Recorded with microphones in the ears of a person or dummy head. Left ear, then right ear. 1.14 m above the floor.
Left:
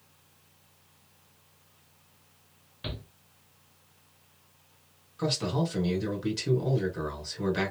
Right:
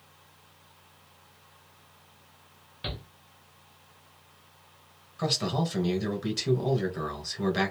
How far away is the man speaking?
About 1.4 m.